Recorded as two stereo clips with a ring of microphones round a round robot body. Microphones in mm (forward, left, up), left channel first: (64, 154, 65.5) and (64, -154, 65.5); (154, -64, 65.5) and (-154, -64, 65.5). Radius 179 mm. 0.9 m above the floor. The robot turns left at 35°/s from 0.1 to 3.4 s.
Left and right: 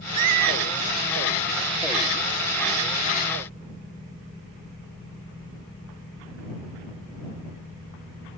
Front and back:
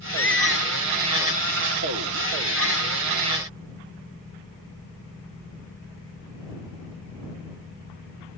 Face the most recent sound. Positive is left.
turn(degrees=165)